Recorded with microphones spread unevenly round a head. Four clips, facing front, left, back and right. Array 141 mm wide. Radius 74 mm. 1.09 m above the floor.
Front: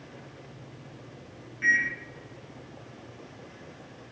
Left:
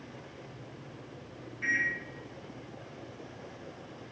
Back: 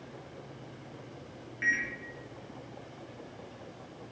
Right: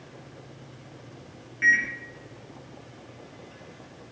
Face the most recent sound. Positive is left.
turn(degrees=-90)